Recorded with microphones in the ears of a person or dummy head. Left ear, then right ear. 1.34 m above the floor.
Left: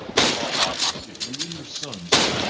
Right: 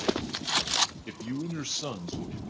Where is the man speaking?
75° right (ahead or behind), 0.7 m; by 2.5 s 20° left (ahead or behind), 1.0 m.